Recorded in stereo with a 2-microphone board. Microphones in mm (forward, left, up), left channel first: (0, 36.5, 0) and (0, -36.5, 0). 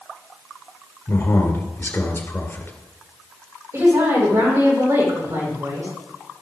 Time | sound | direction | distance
1.1 | a man speaking | 35° left (ahead or behind) | 2 m
3.7 | a woman speaking | 40° right (ahead or behind) | 6 m